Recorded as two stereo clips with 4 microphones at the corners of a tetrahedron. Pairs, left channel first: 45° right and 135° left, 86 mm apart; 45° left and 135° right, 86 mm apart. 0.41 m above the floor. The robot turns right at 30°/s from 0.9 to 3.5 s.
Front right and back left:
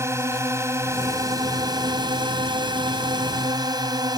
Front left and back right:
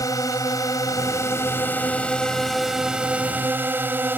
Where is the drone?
85° left; by 4.2 s 160° left.